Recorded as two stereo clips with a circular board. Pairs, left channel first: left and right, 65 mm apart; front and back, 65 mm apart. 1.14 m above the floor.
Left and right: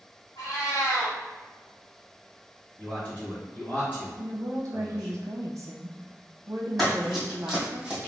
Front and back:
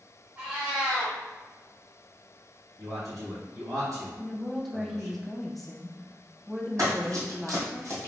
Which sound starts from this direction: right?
A woman speaking, at 4.2 s.